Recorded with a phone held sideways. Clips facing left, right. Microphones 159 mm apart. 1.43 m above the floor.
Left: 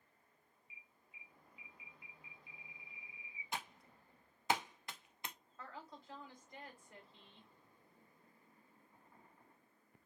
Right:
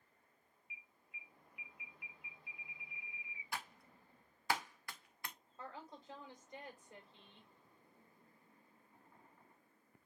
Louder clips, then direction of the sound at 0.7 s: Right 5 dB; 80° right.